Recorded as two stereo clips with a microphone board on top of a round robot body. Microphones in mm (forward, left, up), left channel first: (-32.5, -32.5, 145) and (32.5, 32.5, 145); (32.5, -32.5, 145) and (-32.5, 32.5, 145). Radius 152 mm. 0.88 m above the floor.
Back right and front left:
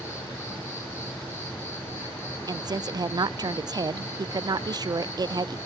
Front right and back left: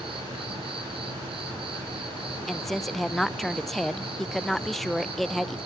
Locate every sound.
0.0 s an insect: 160° left, 7 m
2.5 s a woman speaking: 45° left, 0.9 m